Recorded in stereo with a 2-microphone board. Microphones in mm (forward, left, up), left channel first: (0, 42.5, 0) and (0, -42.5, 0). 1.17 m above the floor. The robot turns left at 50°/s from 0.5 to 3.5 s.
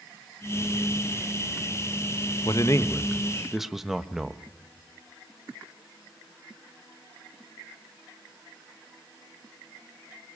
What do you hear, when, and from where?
2.5 s a man speaking: 50° left, 1.1 m; by 4.4 s 5° right, 1.1 m